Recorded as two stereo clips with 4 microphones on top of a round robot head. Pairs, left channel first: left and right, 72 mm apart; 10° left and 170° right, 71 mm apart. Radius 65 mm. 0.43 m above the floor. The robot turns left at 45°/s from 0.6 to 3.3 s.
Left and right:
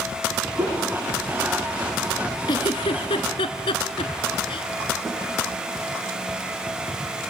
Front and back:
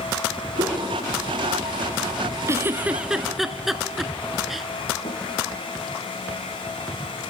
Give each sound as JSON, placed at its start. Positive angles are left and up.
{"t": 0.6, "sound": "a whoosh", "azimuth_deg": -150, "distance_m": 4.0}
{"t": 2.5, "sound": "a giggle", "azimuth_deg": 135, "distance_m": 1.0}
{"t": 5.0, "sound": "a snare drum", "azimuth_deg": 0, "distance_m": 6.5}